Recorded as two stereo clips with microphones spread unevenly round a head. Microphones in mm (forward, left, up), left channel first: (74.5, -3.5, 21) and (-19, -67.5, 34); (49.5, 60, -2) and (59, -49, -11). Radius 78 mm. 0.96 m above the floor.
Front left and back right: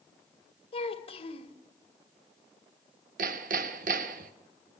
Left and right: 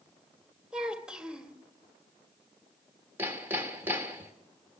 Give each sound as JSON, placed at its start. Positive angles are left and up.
{"t": 0.7, "sound": "a child speaking", "azimuth_deg": 0, "distance_m": 2.0}
{"t": 3.2, "sound": "hammering", "azimuth_deg": -165, "distance_m": 1.2}